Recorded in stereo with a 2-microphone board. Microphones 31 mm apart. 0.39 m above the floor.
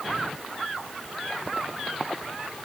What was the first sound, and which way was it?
Only background noise.